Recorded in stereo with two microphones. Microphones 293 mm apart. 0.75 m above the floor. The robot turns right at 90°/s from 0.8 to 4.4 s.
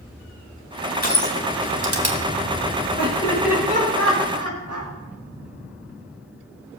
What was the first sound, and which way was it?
Crushing, 30° left (ahead or behind).